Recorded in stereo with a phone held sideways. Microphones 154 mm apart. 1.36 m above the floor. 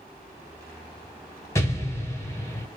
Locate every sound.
1.6 s an explosion: 20° left (ahead or behind), 1.2 m